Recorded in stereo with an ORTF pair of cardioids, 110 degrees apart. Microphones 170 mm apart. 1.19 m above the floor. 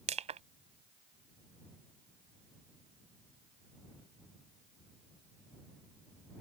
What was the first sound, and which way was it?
Crushing, 40° right.